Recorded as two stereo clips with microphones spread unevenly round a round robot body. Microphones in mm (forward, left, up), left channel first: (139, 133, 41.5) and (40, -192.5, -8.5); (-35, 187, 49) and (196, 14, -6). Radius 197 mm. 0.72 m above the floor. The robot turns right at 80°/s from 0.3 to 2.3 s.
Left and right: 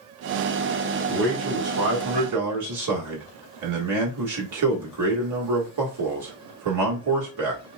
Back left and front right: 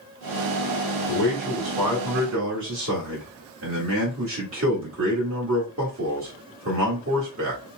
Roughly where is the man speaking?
Behind.